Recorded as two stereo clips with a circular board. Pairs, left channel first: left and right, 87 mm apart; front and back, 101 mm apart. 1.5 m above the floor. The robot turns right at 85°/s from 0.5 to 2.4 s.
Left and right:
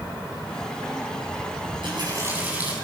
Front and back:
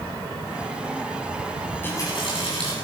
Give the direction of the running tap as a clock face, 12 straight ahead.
3 o'clock.